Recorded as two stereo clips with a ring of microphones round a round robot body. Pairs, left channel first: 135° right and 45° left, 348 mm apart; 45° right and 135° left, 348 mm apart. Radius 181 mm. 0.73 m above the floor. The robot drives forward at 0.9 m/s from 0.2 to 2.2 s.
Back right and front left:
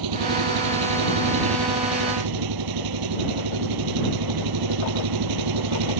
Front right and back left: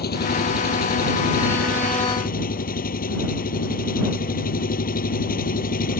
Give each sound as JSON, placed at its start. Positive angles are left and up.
{"t": 0.0, "sound": "an engine running", "azimuth_deg": 20}